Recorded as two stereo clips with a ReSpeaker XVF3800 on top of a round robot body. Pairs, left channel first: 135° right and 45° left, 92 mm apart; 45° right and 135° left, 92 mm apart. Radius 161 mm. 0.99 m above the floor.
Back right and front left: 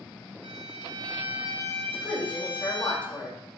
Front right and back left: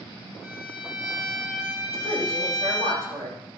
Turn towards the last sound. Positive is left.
turn(degrees=150)